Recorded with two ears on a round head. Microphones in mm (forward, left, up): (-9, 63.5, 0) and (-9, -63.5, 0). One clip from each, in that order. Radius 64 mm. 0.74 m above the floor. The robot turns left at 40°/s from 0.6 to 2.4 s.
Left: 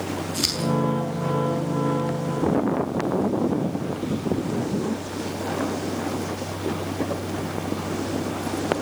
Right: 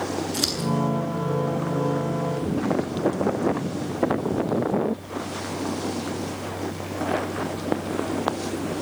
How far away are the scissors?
About 8 m.